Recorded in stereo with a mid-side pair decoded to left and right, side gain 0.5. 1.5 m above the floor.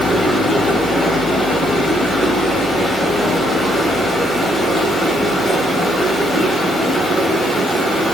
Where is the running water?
5° left, 4 m.